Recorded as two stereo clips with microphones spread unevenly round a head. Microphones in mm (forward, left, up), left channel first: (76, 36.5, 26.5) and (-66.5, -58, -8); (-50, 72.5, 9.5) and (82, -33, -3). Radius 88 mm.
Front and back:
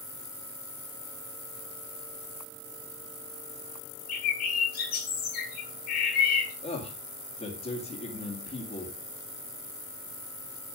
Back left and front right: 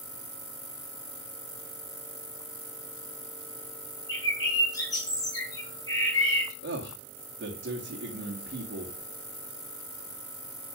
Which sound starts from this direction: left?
A bird, at 4.1 s.